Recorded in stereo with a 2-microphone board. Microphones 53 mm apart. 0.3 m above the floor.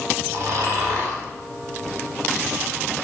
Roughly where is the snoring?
Right.